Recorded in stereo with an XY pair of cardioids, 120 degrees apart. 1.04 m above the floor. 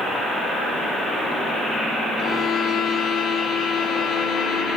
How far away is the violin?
About 1.0 m.